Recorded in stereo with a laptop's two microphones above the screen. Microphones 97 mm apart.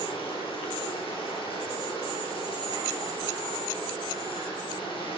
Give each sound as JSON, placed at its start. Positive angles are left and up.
{"t": 0.0, "sound": "running water", "side_deg": 65, "distance_m": 10.0}